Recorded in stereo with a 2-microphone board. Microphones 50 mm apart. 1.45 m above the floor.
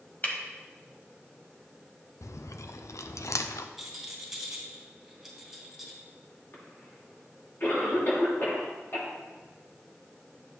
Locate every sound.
0.2 s breaking glass: 35° left (ahead or behind), 1.8 m
2.2 s chewing: 75° left (ahead or behind), 0.5 m
3.8 s a rattle: centre (ahead or behind), 2 m
6.5 s a cough: 45° left (ahead or behind), 3 m